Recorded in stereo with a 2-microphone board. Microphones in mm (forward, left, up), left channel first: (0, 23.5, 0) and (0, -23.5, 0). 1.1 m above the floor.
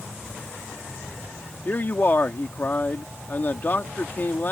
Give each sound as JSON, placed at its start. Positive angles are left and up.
{"t": 1.6, "sound": "a man speaking", "side_deg": 40}